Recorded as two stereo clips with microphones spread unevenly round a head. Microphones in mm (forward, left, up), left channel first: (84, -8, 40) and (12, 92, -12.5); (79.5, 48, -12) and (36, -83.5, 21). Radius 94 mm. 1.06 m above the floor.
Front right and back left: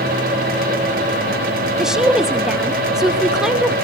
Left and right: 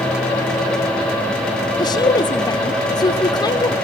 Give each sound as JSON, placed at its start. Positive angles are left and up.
{"t": 1.8, "sound": "a woman speaking", "azimuth_deg": 70, "distance_m": 0.9}